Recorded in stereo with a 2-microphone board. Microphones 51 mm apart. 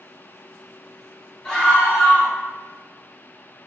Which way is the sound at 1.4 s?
5° left (ahead or behind).